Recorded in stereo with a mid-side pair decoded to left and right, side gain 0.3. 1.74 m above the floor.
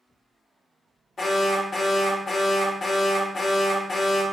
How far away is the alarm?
About 1.1 m.